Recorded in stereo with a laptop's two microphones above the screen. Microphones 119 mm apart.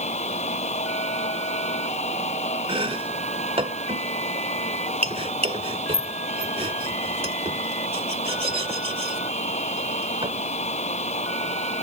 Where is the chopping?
55° right (ahead or behind).